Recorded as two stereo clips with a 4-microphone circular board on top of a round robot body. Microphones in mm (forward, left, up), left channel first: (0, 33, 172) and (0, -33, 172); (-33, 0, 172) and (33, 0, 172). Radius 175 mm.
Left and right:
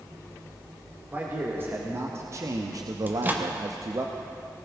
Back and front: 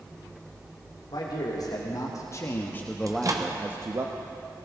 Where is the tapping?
No tapping in this recording.